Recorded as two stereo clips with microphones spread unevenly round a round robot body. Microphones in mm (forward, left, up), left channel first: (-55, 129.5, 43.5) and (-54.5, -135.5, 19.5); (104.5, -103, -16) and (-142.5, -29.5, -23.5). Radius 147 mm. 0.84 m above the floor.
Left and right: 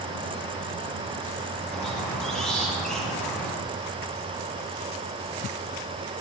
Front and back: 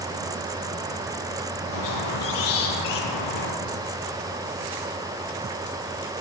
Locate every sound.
1.7 s a squeak: 5° left, 5 m